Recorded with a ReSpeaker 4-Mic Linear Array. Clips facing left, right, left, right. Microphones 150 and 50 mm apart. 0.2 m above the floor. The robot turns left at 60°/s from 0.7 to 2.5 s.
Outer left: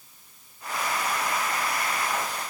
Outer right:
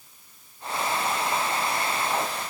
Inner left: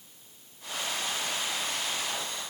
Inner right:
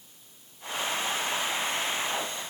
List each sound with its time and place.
Only background noise.